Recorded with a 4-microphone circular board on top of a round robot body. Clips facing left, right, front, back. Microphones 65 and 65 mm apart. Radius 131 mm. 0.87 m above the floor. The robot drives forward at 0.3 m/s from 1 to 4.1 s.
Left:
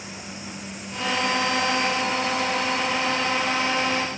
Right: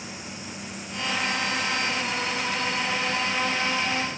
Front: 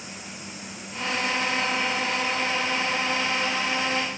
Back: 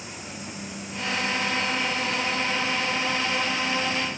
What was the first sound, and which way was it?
Only background noise.